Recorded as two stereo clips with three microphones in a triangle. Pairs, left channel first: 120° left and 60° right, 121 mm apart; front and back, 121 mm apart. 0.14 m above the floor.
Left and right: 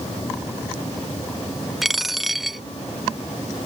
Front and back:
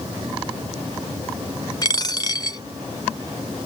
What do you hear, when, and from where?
1.8 s a dropped coin: 25° left